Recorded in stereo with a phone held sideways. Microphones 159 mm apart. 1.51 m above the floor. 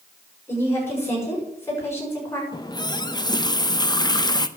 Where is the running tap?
25° left (ahead or behind), 0.7 m.